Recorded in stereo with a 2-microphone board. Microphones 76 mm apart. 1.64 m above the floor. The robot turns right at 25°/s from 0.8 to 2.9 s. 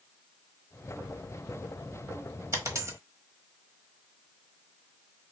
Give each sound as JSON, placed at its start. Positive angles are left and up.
{"t": 2.5, "sound": "a dropped coin", "side_deg": -40, "distance_m": 1.1}